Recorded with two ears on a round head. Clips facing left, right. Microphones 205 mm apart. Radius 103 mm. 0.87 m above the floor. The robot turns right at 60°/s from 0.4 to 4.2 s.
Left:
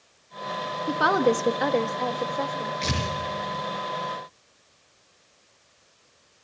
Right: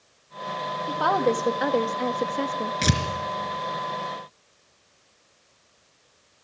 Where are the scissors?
I don't hear scissors.